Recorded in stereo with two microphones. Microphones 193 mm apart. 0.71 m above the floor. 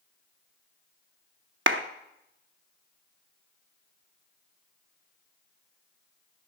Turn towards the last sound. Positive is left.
turn(degrees=-70)  # may be behind; listen again after turning